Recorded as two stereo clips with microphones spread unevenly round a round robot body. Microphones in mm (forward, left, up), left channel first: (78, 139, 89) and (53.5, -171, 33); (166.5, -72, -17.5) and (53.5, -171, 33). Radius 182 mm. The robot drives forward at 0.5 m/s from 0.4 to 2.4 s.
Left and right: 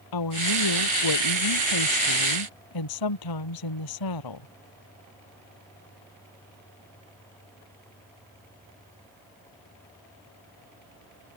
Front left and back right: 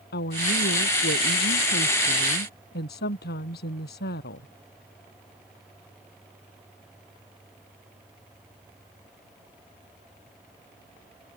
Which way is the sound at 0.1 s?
75° left.